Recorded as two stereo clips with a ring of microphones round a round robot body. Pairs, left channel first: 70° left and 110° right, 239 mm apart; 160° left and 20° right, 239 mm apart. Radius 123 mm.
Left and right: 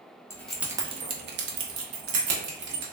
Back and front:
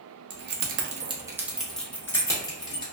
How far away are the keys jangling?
About 0.6 m.